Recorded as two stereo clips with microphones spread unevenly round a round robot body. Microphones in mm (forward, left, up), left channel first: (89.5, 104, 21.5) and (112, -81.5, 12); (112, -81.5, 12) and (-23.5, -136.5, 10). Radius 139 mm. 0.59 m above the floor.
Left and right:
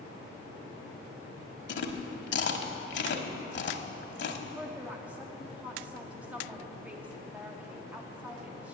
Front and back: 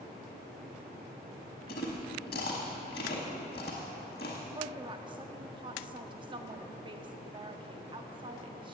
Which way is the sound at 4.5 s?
155° right.